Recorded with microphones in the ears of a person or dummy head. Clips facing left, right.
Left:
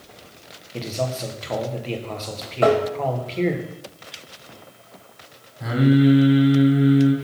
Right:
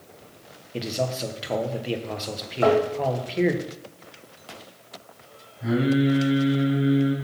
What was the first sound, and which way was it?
A man speaking, 15° right (ahead or behind).